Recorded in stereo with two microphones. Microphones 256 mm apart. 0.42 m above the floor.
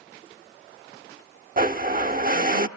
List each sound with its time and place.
1.6 s a blender: 35° right (ahead or behind), 0.7 m